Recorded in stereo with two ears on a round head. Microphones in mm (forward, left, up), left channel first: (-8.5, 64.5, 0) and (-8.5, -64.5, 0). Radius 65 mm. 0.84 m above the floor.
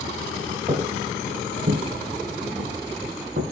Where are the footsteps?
35° right (ahead or behind), 1.4 m; by 3.4 s 70° right (ahead or behind), 2.5 m.